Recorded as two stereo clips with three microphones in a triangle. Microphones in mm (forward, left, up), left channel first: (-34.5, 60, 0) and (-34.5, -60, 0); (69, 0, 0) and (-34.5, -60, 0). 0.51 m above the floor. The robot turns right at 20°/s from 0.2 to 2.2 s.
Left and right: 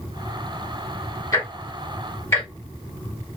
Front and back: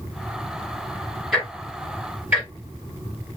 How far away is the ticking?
About 1.2 m.